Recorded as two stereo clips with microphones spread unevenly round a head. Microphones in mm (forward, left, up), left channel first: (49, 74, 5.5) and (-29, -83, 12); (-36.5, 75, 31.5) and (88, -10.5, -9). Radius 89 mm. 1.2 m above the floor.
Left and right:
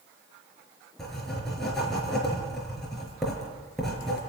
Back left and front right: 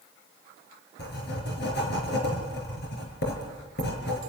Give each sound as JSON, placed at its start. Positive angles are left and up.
{"t": 1.0, "sound": "writing", "azimuth_deg": 150, "distance_m": 5.0}